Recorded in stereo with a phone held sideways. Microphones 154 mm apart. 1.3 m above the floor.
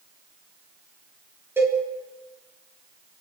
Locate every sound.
1.6 s a cowbell: 15° right (ahead or behind), 4.5 m